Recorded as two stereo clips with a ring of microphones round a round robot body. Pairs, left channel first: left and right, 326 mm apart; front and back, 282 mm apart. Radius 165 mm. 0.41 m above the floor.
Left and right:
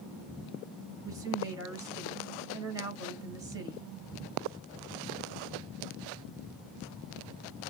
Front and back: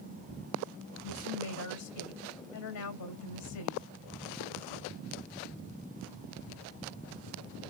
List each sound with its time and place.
1.0 s a woman speaking: 10° right, 2.5 m